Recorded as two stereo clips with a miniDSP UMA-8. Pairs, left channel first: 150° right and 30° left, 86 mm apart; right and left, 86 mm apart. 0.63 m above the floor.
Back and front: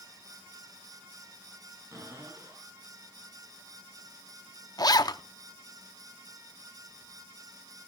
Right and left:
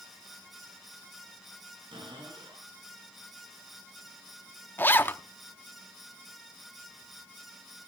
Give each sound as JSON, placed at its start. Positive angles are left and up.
{"t": 1.9, "sound": "a cupboard door", "azimuth_deg": 80, "distance_m": 9.0}
{"t": 4.8, "sound": "a zipper", "azimuth_deg": -150, "distance_m": 0.6}